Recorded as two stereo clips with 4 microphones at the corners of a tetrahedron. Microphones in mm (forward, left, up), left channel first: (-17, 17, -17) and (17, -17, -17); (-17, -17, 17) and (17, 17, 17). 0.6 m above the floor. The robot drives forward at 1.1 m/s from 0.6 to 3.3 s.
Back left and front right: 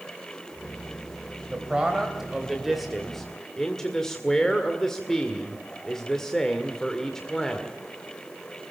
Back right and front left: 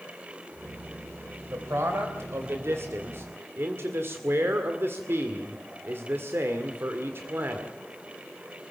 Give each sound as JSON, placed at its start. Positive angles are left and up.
{"t": 1.5, "sound": "a man speaking", "azimuth_deg": 25, "distance_m": 3.5}